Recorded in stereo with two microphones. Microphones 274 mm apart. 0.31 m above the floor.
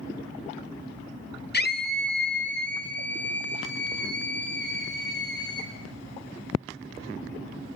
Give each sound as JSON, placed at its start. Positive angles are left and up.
{"t": 1.5, "sound": "a scream", "side_deg": 35, "distance_m": 1.6}